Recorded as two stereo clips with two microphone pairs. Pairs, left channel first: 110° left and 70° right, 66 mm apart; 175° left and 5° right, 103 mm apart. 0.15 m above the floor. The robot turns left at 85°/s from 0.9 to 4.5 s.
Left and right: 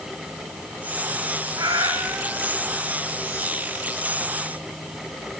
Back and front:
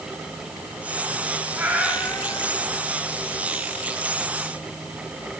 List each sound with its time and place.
1.6 s a cat meowing: 70° right, 3.5 m; by 2.9 s straight behind, 3.5 m